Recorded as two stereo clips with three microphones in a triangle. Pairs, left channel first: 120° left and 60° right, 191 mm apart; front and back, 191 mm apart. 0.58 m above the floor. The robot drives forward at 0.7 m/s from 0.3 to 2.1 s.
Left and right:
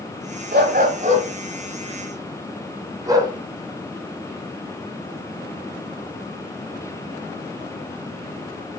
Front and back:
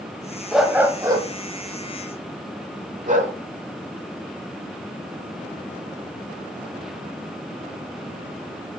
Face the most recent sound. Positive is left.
turn(degrees=-130)